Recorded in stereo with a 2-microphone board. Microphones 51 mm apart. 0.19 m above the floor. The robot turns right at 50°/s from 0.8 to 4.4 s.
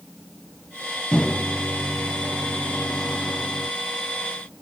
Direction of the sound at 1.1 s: 15° left (ahead or behind).